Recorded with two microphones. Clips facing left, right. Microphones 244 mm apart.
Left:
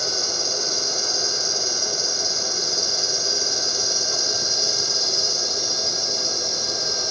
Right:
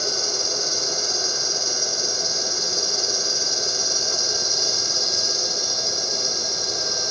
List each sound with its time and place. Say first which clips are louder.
0.0 s an insect: right 1 dB; 30° left (ahead or behind), 4 m